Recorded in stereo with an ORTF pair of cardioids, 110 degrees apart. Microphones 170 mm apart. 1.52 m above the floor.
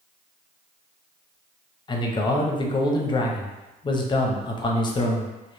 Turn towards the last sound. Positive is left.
turn(degrees=30)